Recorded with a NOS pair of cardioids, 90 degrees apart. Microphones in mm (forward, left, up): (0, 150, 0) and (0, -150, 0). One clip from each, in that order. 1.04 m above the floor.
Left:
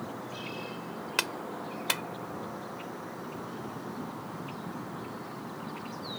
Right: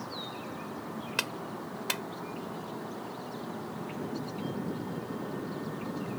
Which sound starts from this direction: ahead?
A clap, at 1.2 s.